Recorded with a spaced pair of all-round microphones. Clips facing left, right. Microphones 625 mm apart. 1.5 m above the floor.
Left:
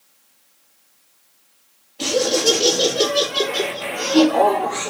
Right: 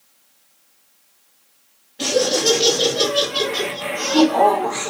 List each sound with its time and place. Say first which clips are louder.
2.0 s laughter: even; 45° right (ahead or behind), 4 m